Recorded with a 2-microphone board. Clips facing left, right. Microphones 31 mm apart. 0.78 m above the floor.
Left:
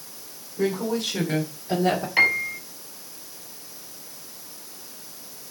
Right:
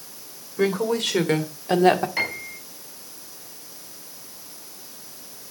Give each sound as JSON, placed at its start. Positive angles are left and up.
{"t": 0.6, "sound": "a woman speaking", "side_deg": -75, "distance_m": 3.0}
{"t": 2.2, "sound": "a piano", "side_deg": 20, "distance_m": 4.5}